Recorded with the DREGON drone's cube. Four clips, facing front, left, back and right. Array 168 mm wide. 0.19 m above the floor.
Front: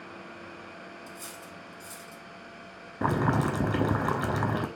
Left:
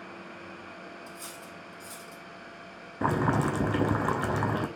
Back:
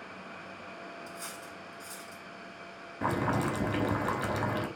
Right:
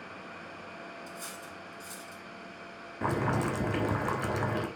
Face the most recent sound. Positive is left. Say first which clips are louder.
# left 3 dB, front 3 dB
turn(degrees=40)